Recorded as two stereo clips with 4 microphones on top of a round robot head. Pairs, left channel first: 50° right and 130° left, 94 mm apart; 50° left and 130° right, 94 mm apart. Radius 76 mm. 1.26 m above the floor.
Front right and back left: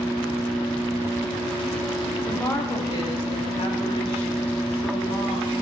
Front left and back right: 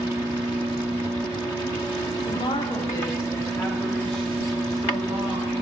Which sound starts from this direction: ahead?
A woman speaking, at 2.2 s.